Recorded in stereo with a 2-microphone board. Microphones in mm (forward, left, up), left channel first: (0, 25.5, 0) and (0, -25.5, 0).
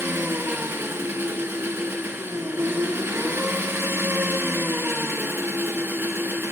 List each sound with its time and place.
0.0 s an engine running: 50° right (ahead or behind), 1.2 m